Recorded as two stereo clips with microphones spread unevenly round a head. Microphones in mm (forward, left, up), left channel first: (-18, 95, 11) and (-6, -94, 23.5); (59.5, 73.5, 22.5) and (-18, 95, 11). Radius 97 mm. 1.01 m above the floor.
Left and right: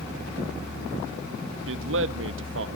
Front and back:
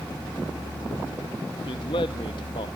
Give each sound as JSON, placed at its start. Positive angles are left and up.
{"t": 1.7, "sound": "a man speaking", "azimuth_deg": -65, "distance_m": 1.2}